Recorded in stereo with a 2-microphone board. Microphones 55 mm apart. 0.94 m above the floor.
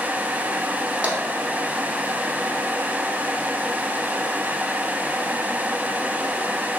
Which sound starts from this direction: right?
Tapping, at 1.0 s.